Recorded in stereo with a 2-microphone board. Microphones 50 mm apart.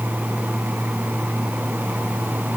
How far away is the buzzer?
I don't hear a buzzer.